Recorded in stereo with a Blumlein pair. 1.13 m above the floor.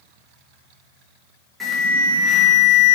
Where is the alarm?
5° right, 0.6 m.